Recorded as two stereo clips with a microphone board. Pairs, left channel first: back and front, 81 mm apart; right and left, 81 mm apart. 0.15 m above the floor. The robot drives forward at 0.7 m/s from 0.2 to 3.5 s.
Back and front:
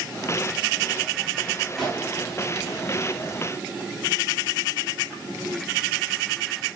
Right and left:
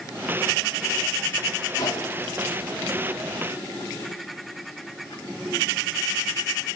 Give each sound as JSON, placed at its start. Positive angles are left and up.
{"t": 1.8, "sound": "a gunshot", "azimuth_deg": -95, "distance_m": 3.5}